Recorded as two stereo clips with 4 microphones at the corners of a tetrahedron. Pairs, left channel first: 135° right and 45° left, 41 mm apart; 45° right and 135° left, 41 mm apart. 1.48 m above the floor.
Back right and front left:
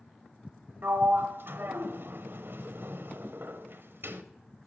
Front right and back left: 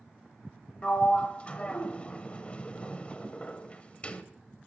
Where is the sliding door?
15° left, 1.1 m.